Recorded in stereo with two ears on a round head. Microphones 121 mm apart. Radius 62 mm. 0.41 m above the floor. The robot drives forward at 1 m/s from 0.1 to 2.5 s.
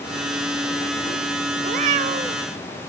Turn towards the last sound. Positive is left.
turn(degrees=-35)  # may be behind; listen again after turning